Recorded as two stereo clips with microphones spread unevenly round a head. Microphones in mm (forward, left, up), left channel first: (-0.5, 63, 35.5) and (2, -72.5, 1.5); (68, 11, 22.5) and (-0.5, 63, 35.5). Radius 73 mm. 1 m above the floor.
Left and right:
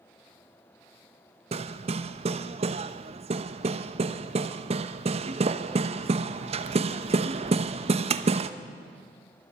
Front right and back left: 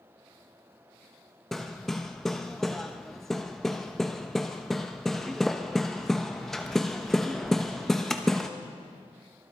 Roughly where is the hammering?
Behind right.